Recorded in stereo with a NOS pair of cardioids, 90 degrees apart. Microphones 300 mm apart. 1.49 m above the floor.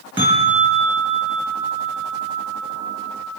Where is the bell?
15° right, 9 m.